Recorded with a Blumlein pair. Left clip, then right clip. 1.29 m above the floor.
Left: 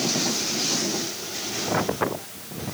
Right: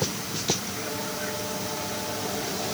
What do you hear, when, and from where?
Only background noise.